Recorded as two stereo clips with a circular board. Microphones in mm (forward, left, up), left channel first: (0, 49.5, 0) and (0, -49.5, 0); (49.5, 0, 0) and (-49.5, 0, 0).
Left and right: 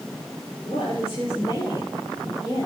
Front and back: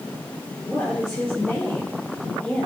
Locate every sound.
0.6 s a woman speaking: 80° left, 5.5 m